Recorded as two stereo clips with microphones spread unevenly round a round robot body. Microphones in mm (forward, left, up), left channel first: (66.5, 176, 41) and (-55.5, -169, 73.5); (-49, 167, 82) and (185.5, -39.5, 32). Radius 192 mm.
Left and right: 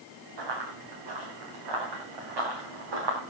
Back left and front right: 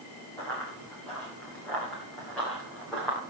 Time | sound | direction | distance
0.4 | running footsteps | 140° right | 7 m